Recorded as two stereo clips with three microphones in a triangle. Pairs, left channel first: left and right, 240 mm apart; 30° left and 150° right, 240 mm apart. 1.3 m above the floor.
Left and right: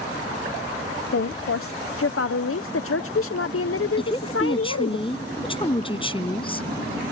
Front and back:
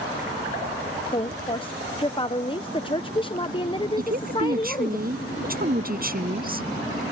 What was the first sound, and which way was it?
A woman speaking, 95° left.